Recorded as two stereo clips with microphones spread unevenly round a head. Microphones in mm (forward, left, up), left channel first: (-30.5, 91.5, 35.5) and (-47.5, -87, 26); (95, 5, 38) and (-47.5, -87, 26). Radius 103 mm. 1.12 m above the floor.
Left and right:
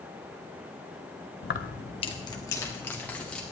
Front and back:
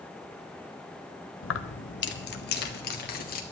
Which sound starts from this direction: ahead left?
Keys jangling, at 1.4 s.